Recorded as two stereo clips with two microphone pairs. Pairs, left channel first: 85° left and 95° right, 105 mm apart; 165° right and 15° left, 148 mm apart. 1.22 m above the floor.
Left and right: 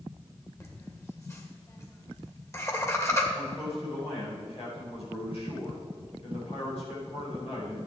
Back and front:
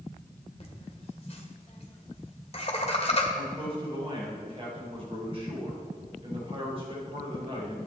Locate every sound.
0.6 s laughter: 150° left, 2 m
3.3 s a man speaking: 65° left, 4.5 m